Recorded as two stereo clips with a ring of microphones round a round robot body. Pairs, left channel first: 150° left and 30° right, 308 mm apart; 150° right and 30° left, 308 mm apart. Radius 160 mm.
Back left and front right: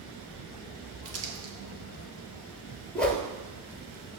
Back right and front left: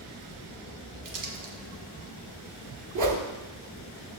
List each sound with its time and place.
1.1 s crumpling: 10° left, 2 m
3.0 s a whoosh: 65° left, 1.6 m